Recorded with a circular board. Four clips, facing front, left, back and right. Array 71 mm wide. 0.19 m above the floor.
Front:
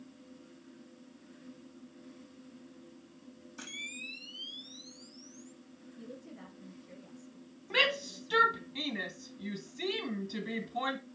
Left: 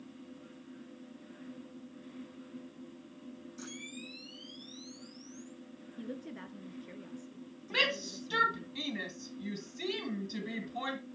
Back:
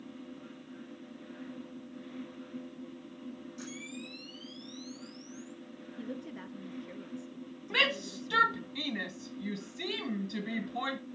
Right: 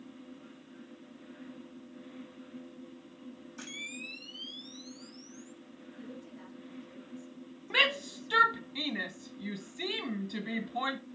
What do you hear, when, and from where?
3.6 s a camera shutter: 45° right, 3.5 m
6.0 s a woman speaking: 135° left, 2.5 m
7.7 s a shout: 95° right, 1.5 m